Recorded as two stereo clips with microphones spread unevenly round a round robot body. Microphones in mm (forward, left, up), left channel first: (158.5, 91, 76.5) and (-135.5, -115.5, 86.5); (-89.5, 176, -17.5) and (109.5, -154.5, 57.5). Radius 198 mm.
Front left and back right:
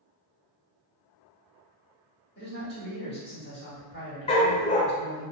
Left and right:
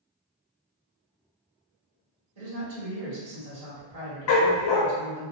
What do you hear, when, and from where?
2.4 s a man speaking: 15° right, 1.9 m
4.3 s a dog barking: 110° left, 0.6 m